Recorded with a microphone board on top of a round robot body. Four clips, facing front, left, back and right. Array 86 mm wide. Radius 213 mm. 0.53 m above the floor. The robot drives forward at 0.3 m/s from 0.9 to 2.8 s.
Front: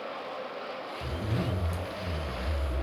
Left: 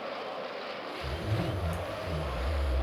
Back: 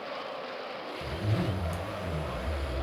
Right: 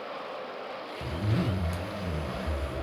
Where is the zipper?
90° right, 1.2 m; by 2.8 s 115° right, 1.3 m.